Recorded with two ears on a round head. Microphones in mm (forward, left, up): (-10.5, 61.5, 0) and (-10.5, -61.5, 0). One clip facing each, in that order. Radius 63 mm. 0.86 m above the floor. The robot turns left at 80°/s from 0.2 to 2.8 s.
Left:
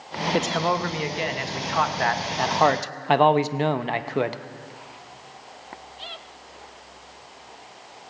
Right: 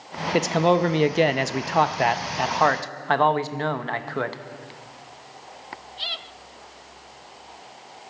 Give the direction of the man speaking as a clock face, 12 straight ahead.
12 o'clock.